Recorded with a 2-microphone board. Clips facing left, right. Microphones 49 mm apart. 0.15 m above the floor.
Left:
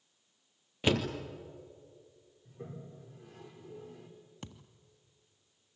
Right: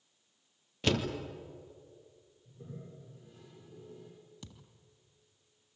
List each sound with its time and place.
0.8 s a door slam: 15° left (ahead or behind), 2.5 m
2.5 s a toilet flushing: 85° left, 8.5 m
4.4 s a thud: 50° left (ahead or behind), 1.5 m